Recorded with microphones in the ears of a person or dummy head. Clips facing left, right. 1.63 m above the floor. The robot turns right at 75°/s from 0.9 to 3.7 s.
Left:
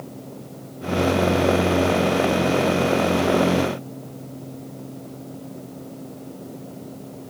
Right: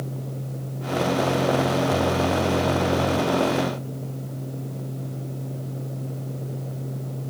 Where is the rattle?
No rattle in this recording.